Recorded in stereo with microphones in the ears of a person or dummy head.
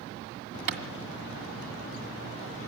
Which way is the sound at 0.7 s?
60° right (ahead or behind).